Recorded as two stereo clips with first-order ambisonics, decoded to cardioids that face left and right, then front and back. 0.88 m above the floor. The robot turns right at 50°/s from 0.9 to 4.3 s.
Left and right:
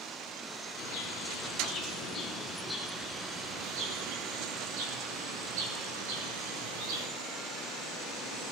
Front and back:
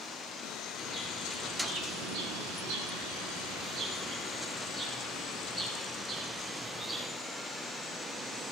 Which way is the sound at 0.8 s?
100° left.